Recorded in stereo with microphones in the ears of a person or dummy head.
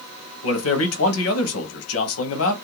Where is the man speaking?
85° left, 0.7 m.